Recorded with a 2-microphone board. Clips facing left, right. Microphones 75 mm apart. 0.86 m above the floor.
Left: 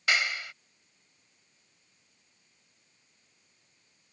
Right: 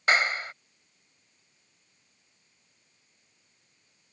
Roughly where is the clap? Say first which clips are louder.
Right 4 dB; right.